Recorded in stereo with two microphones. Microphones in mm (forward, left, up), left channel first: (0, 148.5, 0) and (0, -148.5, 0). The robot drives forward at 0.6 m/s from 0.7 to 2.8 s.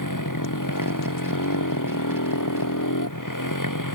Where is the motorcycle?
85° left; by 4.0 s 90° left.